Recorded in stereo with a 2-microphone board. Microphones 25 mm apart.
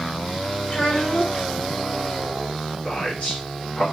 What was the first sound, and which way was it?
A child speaking, 60° left (ahead or behind).